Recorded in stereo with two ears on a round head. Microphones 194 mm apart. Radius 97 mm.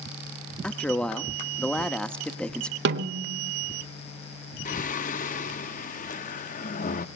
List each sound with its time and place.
0.6 s a man speaking: 5° left (ahead or behind), 1.3 m
2.9 s a snare drum: 55° right (ahead or behind), 1.5 m
4.7 s singing: 40° left (ahead or behind), 0.7 m